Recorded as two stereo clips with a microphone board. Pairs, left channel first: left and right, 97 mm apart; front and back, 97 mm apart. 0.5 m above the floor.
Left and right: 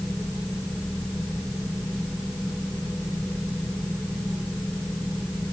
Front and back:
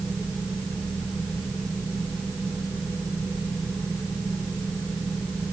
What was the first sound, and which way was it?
Only background noise.